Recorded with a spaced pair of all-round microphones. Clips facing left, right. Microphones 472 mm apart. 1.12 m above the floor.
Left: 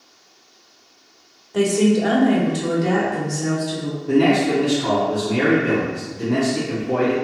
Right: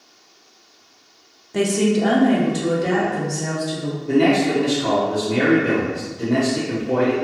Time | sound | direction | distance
1.5 | a woman speaking | 45° right (ahead or behind) | 0.5 m
4.1 | a man speaking | 10° left (ahead or behind) | 0.8 m